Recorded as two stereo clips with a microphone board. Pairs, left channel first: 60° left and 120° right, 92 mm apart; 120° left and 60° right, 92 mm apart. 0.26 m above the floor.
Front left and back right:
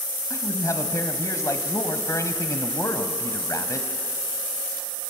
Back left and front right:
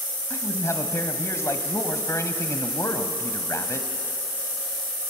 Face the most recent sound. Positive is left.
turn(degrees=85)